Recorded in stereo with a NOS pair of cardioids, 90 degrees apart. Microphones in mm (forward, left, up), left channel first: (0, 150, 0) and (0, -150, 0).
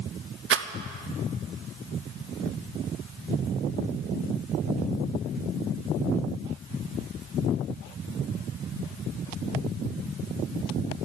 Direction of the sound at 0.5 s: 45° right.